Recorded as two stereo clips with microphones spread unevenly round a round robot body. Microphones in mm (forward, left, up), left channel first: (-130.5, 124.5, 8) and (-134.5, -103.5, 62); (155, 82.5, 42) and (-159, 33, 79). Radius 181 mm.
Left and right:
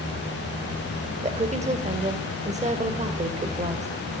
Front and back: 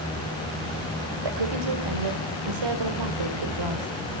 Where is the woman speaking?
155° right, 3 m.